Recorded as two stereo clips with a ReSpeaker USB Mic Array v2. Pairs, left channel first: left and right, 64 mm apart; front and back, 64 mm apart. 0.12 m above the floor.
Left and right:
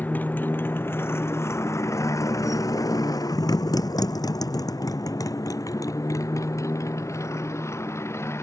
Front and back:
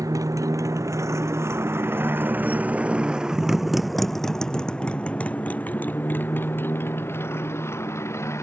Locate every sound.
0.0 s a motorcycle: 155° left; by 8.4 s 45° left